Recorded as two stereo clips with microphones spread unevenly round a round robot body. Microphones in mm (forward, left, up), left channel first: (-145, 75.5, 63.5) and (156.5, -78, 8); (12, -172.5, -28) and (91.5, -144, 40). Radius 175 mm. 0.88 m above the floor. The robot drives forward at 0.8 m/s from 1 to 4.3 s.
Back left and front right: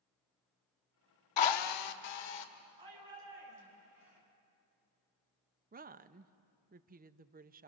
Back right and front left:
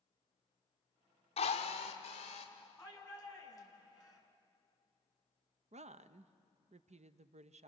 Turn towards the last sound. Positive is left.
turn(degrees=5)